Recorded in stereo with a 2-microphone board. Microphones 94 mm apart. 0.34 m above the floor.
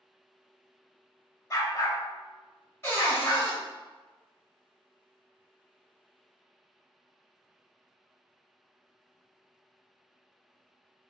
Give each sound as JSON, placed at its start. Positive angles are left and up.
{"t": 1.5, "sound": "a dog barking", "side_deg": 35, "distance_m": 0.6}
{"t": 2.8, "sound": "a cupboard door", "side_deg": 25, "distance_m": 1.6}